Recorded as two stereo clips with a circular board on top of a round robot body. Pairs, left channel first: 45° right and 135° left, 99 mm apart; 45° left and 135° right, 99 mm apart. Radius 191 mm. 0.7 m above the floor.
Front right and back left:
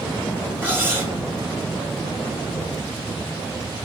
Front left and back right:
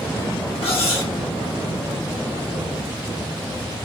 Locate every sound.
0.6 s cutlery clinking: 65° left, 1.2 m